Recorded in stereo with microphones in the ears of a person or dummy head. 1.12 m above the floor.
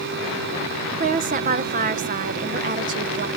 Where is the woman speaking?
40° right (ahead or behind), 0.6 m.